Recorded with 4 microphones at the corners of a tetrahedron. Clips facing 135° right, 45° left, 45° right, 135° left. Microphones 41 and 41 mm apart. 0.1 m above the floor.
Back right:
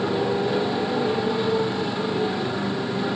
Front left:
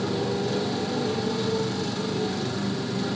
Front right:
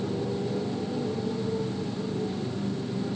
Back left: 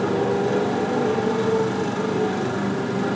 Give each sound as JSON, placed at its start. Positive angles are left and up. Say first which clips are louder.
{"t": 0.0, "sound": "a motorcycle", "louder": "back right 4 dB, back left 9 dB", "azimuth_deg": 155}